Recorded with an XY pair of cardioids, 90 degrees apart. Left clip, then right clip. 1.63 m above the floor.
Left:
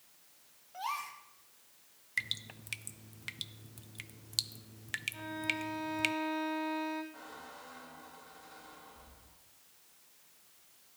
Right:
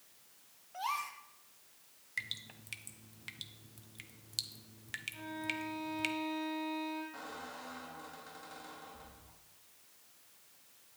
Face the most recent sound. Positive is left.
turn(degrees=-55)